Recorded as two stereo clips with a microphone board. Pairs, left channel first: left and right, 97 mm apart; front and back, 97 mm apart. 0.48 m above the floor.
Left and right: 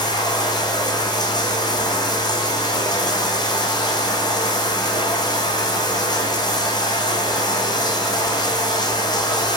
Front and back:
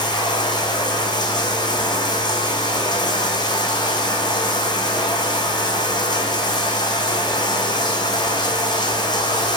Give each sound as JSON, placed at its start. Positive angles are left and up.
{"t": 0.0, "sound": "running water", "azimuth_deg": 45, "distance_m": 3.0}